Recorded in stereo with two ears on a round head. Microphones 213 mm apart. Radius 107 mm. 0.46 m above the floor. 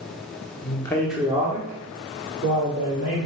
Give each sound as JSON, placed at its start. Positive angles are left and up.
{"t": 0.6, "sound": "a man speaking", "side_deg": 25, "distance_m": 0.8}